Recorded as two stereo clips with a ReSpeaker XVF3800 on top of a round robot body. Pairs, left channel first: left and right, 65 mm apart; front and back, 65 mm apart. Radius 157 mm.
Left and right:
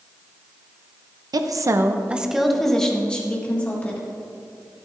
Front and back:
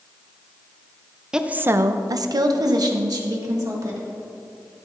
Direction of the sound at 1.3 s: 100° right.